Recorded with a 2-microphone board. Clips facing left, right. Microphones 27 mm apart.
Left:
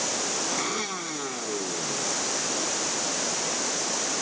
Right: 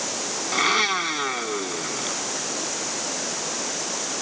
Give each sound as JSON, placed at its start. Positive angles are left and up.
{"t": 0.5, "sound": "a blender", "side_deg": -45}